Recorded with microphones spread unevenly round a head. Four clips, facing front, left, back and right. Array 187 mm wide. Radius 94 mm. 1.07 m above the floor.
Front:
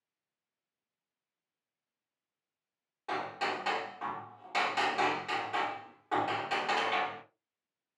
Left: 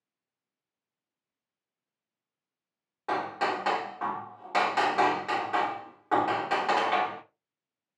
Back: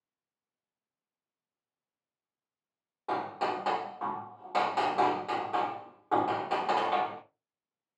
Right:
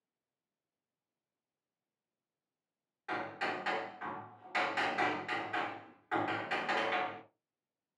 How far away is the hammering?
About 1.9 m.